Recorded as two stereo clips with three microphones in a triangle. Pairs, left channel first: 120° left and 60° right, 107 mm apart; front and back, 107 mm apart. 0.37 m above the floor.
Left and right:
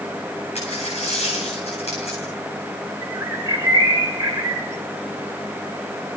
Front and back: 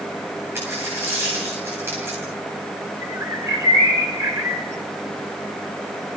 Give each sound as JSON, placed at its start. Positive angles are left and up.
{"t": 0.6, "sound": "a dropped coin", "azimuth_deg": 110, "distance_m": 9.5}
{"t": 3.0, "sound": "a bird", "azimuth_deg": -120, "distance_m": 3.0}